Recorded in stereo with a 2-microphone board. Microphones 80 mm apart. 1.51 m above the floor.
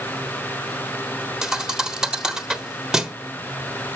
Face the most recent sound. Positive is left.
turn(degrees=-10)  # may be behind; listen again after turning